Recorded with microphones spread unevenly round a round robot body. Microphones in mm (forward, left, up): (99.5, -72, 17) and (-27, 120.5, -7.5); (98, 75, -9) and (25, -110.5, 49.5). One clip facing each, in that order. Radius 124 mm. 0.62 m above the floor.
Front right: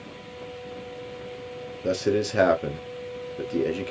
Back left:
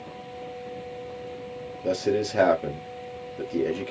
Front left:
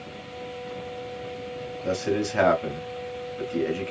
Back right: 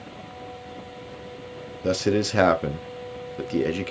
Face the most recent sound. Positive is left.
turn(degrees=-140)